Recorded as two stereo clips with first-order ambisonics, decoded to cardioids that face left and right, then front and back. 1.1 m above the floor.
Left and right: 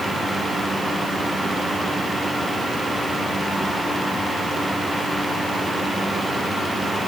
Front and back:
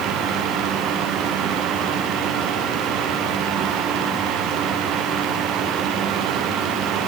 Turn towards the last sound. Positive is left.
No sound to turn to.